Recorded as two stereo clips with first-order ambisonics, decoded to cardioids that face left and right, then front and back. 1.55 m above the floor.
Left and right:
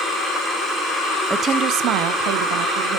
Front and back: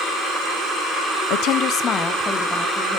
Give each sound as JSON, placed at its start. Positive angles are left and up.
{"t": 1.3, "sound": "a woman speaking", "azimuth_deg": -10, "distance_m": 0.6}